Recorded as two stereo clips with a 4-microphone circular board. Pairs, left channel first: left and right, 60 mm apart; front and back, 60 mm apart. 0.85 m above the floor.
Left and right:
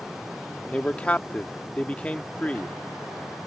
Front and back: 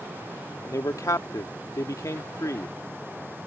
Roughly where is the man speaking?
Ahead left.